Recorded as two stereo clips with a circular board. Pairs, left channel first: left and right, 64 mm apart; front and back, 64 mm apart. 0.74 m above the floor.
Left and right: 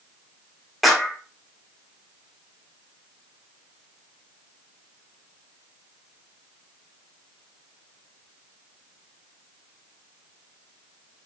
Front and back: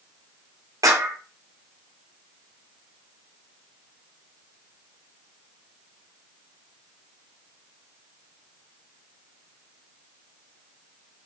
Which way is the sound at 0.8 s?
Straight behind.